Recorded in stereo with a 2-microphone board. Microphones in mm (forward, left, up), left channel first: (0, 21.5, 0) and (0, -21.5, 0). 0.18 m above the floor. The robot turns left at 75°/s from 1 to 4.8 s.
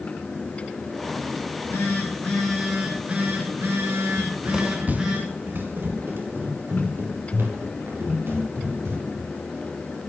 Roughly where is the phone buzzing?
Left.